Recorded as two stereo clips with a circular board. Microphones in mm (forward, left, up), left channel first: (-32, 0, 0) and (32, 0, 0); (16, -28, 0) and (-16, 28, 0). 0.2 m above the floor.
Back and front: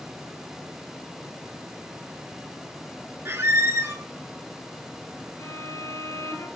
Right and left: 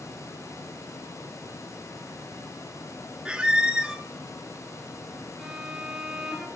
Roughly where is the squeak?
Ahead left.